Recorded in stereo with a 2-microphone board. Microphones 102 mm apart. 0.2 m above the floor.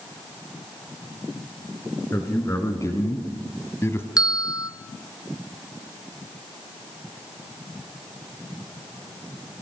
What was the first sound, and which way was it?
A man speaking, 25° left (ahead or behind).